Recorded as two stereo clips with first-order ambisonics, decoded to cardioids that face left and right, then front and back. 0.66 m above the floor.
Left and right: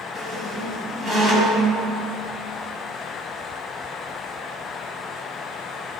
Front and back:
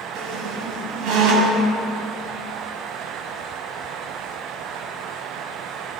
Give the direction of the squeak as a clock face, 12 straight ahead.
5 o'clock.